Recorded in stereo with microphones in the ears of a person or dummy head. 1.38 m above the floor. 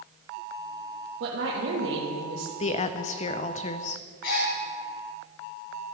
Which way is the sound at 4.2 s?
65° left (ahead or behind).